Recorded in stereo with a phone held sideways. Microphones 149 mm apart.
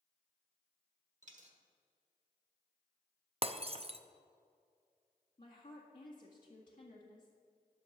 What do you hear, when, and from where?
1.2 s a dropped coin: 55° right (ahead or behind), 1.2 m
3.4 s breaking glass: 40° right (ahead or behind), 0.5 m
5.4 s a woman speaking: 60° left (ahead or behind), 1.7 m